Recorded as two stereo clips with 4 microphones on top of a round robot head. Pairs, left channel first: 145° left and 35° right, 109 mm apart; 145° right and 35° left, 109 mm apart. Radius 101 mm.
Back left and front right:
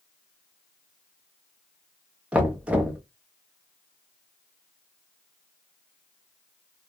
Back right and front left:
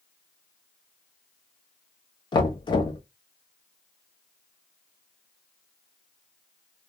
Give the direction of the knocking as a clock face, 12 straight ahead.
4 o'clock.